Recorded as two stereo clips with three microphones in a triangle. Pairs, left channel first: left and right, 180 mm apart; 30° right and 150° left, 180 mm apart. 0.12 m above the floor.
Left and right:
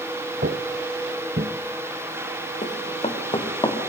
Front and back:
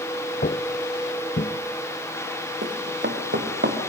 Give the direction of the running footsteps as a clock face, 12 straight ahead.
7 o'clock.